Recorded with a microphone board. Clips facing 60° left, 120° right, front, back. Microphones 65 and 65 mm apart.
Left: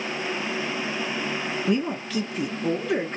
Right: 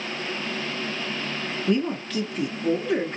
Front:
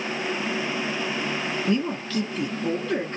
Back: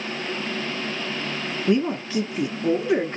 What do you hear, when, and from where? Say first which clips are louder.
1.7 s a woman speaking: right 2 dB, back 5 dB; 135° left, 0.8 m